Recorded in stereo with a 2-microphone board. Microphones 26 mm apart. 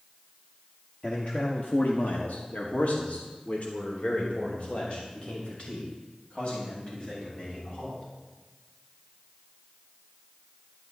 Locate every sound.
1.0 s a man speaking: 50° left (ahead or behind), 1.3 m; by 8.0 s 35° left (ahead or behind), 6.5 m